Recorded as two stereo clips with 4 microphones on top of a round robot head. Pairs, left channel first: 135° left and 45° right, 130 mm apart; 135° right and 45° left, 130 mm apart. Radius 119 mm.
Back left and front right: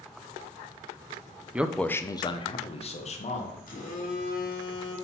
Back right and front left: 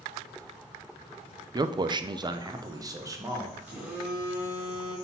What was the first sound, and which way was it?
A man speaking, 25° left.